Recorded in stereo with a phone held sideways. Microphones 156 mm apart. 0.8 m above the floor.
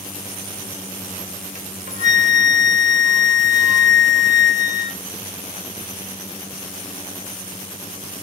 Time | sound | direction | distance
1.6 | a flute | 50° right (ahead or behind) | 1.0 m